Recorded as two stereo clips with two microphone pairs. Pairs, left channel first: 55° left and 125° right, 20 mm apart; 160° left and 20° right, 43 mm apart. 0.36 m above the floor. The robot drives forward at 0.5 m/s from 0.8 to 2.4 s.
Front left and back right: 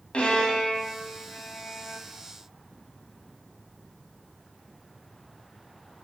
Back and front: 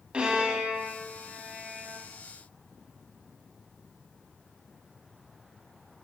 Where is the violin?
40° left, 1.4 m; by 2.0 s 65° left, 1.1 m.